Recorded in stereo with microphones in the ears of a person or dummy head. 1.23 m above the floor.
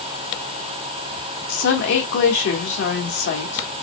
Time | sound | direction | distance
1.5 | a woman speaking | 60° left (ahead or behind) | 1.6 m